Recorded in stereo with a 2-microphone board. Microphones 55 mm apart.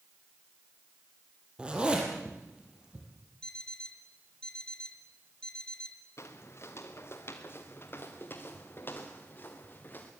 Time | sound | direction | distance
1.6 | a zipper | 15° right (ahead or behind) | 5 m
3.4 | an alarm clock | 15° left (ahead or behind) | 2 m
6.2 | footsteps | 55° left (ahead or behind) | 2.5 m